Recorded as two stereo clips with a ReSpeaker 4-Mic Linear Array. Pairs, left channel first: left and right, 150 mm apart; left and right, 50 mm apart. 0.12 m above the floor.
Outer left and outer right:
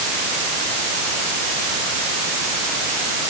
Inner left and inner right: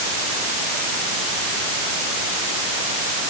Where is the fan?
No fan in this recording.